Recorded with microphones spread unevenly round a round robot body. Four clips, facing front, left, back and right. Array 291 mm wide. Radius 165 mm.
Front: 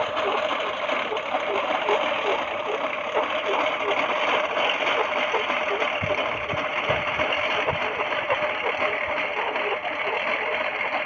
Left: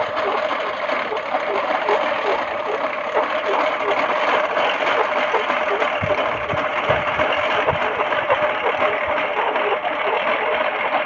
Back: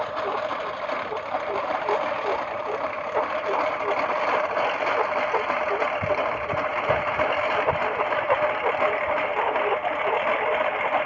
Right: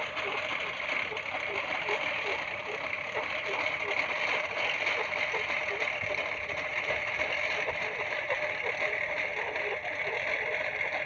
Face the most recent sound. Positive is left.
turn(degrees=75)